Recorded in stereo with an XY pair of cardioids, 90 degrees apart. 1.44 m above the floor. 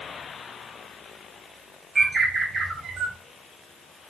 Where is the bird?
35° right, 1.0 m.